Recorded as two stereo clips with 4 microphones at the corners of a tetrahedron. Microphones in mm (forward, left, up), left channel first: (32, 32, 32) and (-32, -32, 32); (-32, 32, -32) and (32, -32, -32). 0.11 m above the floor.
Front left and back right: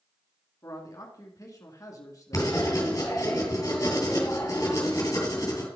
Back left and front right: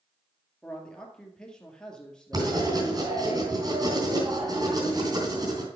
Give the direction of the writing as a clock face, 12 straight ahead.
12 o'clock.